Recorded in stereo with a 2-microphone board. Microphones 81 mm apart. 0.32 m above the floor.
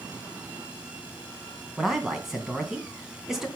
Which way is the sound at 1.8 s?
5° right (ahead or behind).